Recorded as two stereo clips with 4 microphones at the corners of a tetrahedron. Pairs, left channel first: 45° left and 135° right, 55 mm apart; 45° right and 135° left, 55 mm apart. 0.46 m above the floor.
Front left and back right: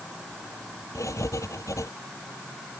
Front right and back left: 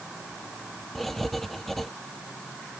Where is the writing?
40° left.